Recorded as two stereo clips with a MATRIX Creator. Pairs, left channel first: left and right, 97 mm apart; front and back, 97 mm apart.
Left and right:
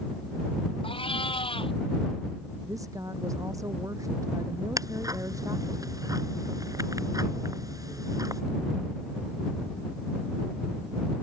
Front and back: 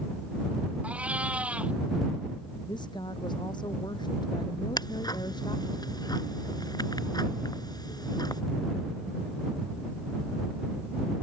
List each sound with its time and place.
0.8 s a cat meowing: 105° left
2.6 s a woman speaking: 35° right
4.8 s ticking: 40° right